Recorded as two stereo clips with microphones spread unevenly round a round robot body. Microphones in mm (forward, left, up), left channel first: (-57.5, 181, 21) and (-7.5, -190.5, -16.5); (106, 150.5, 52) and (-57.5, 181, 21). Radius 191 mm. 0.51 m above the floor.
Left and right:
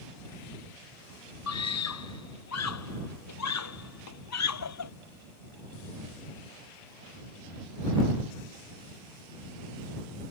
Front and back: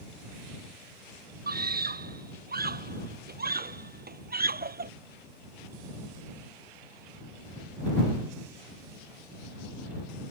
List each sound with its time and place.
1.5 s a scream: 145° left